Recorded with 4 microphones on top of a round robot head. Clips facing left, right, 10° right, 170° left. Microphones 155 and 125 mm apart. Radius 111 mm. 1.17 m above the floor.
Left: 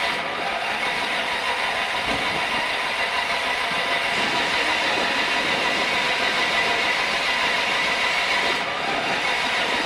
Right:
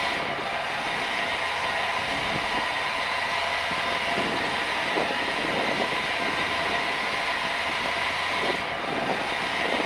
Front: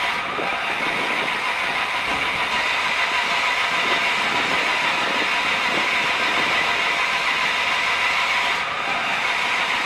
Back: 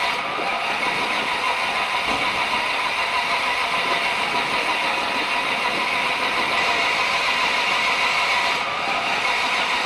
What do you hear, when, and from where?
0.0 s an engine running: 110° left, 1.2 m